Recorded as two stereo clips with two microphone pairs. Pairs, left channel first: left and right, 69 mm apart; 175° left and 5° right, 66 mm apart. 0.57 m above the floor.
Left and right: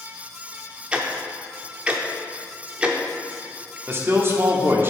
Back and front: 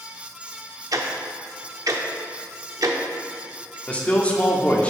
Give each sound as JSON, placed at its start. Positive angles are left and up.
{"t": 0.9, "sound": "ticking", "azimuth_deg": -15, "distance_m": 0.6}
{"t": 3.9, "sound": "a man speaking", "azimuth_deg": -125, "distance_m": 0.9}